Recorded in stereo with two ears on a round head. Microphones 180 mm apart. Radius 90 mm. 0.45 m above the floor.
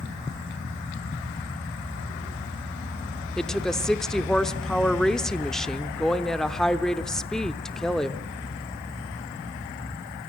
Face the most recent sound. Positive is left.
turn(degrees=0)  # may be behind; listen again after turning